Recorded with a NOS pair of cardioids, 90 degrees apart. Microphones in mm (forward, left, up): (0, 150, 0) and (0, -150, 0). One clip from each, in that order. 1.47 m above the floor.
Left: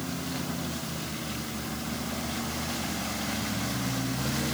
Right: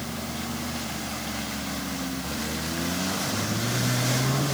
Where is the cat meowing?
I don't hear a cat meowing.